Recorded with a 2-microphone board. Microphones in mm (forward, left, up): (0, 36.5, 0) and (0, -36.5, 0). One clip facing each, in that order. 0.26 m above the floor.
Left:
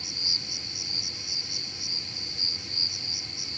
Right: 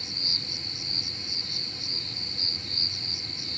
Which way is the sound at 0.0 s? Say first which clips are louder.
Right 1 dB; 15° left (ahead or behind).